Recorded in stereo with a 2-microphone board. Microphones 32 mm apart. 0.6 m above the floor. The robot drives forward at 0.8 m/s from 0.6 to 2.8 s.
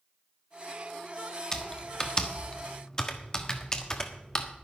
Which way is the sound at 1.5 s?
20° left (ahead or behind).